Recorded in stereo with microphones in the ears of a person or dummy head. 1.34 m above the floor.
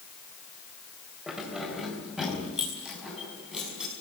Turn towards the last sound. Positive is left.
turn(degrees=-5)  # may be behind; listen again after turning